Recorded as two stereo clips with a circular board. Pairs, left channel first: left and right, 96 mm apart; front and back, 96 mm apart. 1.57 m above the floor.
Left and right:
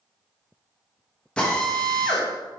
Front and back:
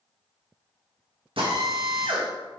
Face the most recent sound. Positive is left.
turn(degrees=170)